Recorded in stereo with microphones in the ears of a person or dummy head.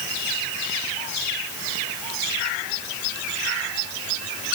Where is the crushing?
No crushing in this recording.